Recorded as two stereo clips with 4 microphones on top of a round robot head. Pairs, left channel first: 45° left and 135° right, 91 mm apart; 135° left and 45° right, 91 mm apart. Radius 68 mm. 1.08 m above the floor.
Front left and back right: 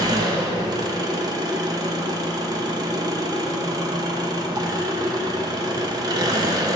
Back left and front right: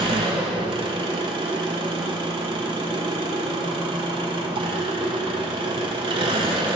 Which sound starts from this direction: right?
An engine running, at 0.0 s.